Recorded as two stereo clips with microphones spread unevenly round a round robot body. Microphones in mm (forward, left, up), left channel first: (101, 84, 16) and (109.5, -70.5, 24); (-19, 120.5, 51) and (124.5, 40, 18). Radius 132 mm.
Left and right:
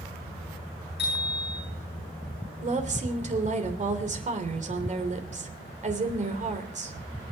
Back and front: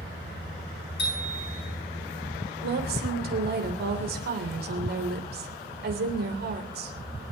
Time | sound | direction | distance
1.0 | a bicycle bell | 140° left | 8 m
2.6 | a woman speaking | 50° right | 3 m